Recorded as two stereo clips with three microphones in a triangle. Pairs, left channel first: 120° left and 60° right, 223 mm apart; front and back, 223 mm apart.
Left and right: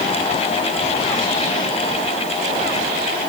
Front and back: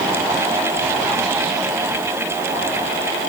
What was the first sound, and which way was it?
Only background noise.